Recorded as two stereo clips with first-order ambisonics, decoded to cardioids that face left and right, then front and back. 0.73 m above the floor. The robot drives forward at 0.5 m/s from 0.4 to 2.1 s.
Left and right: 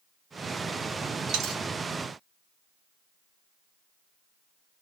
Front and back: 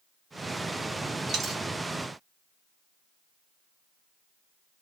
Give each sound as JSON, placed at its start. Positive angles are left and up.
{"t": 1.3, "sound": "a dropped coin", "azimuth_deg": -120, "distance_m": 0.8}